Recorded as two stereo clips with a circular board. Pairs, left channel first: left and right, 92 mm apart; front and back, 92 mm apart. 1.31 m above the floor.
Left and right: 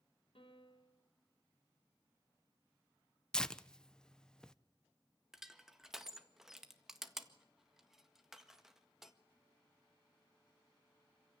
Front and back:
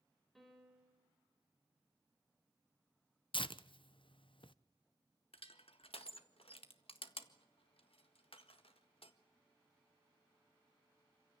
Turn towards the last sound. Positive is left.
turn(degrees=-5)